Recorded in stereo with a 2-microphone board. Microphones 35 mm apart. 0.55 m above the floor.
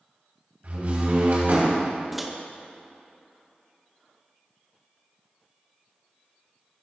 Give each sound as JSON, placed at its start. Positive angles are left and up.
{"t": 0.6, "sound": "a door slam", "side_deg": -50, "distance_m": 3.0}
{"t": 2.1, "sound": "a microwave", "side_deg": -5, "distance_m": 0.7}